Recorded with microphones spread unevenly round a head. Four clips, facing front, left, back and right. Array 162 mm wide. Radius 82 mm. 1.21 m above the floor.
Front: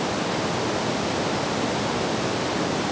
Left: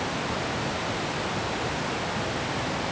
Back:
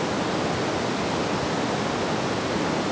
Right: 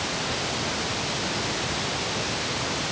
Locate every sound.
Only background noise.